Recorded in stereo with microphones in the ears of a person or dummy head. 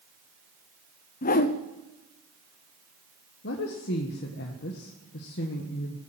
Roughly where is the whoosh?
Left.